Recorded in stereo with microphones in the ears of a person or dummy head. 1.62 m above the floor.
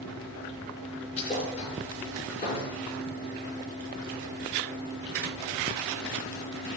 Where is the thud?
35° left (ahead or behind), 5.5 m.